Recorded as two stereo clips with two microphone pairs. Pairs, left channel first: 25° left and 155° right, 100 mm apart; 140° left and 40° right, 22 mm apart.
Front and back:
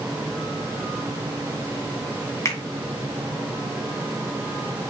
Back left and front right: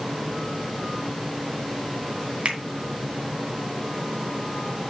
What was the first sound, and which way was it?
A finger snap, 30° right.